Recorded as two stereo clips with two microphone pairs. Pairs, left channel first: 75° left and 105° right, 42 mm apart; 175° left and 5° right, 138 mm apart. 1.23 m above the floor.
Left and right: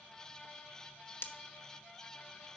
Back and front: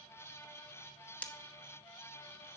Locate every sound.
1.2 s breaking glass: 95° left, 0.9 m